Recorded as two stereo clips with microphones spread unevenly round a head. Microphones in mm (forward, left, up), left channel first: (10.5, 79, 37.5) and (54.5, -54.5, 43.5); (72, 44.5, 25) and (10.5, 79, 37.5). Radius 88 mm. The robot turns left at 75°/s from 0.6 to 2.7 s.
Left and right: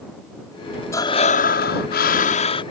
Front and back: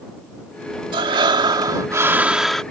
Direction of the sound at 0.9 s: Straight behind.